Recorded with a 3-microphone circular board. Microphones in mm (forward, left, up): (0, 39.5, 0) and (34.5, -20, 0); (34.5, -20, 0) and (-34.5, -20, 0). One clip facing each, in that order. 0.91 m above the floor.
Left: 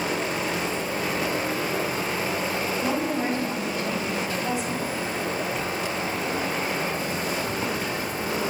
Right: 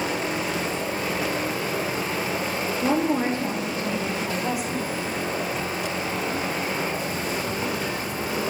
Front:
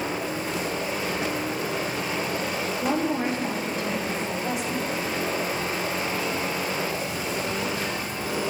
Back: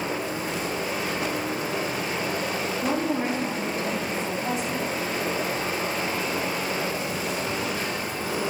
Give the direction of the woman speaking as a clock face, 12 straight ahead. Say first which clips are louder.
Right 6 dB, front 1 dB; 4 o'clock.